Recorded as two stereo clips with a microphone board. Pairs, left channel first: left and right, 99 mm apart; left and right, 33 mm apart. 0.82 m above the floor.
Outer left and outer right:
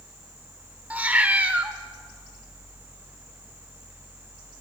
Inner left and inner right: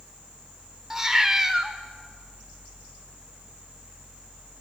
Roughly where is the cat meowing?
Centre.